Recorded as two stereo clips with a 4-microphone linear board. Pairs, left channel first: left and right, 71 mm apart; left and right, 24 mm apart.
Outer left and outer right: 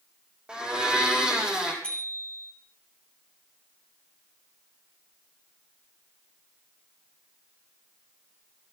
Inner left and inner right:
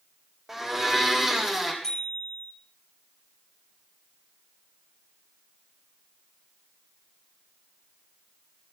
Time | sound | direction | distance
0.5 | a blender | 15° right (ahead or behind) | 3.5 m
1.8 | a bicycle bell | 15° left (ahead or behind) | 9.5 m